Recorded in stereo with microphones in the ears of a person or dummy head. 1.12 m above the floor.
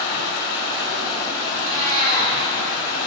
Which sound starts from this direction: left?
Running water, at 0.0 s.